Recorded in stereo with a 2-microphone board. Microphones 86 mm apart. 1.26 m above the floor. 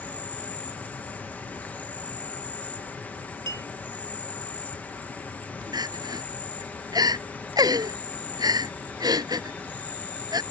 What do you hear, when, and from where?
0.0 s an insect: 20° left (ahead or behind)
3.5 s a clink: 55° right (ahead or behind)
5.7 s crying: 50° right (ahead or behind)